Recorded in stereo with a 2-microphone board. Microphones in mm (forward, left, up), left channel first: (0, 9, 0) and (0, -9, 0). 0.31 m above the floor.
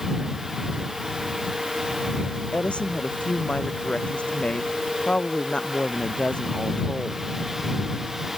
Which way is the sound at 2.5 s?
85° left.